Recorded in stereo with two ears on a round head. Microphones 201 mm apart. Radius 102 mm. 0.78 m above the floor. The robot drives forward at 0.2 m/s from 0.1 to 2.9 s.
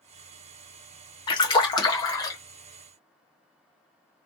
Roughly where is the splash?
Left.